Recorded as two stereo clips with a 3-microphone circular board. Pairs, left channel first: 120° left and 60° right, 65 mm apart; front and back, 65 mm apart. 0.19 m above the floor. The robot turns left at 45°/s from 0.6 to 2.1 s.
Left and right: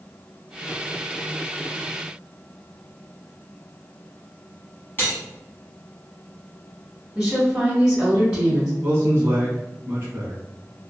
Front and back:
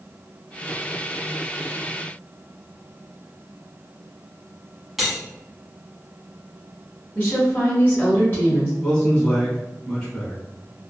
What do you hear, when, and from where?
5.0 s cutlery clinking: 95° left, 0.9 m
7.2 s a woman speaking: 10° left, 1.6 m
8.8 s a man speaking: 65° right, 1.2 m